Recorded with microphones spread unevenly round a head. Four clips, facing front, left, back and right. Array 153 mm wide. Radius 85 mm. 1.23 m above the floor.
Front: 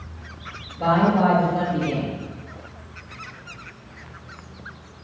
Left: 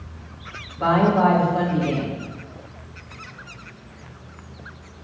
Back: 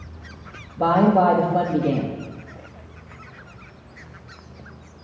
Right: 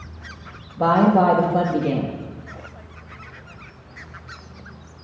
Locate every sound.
0.8 s a woman speaking: 145° right, 2.5 m